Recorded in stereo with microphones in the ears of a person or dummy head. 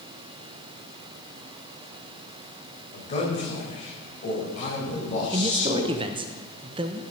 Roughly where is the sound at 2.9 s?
Left.